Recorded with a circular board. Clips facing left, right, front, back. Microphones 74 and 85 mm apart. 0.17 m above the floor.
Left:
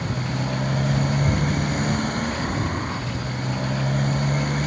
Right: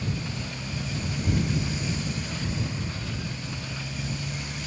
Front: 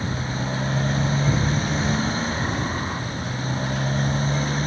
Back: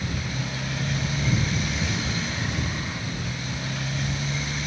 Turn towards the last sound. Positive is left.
turn(degrees=50)